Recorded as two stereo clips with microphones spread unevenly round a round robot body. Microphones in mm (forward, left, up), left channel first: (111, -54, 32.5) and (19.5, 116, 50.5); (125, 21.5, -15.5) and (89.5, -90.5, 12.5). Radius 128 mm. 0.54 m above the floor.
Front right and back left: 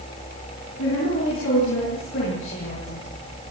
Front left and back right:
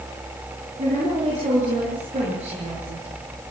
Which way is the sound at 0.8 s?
85° right.